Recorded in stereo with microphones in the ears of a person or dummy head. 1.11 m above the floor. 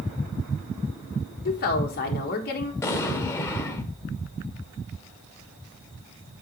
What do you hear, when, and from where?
1.4 s a woman speaking: 45° left (ahead or behind), 1.5 m
2.8 s an explosion: 15° left (ahead or behind), 0.8 m